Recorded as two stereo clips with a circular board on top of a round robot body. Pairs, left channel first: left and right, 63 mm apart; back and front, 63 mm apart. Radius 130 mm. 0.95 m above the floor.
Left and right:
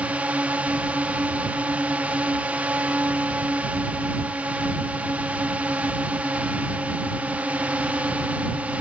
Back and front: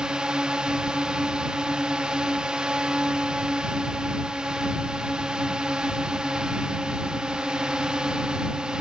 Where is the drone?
60° right.